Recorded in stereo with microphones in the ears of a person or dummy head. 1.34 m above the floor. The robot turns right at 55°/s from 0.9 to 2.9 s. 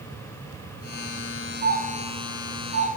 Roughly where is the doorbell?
Right.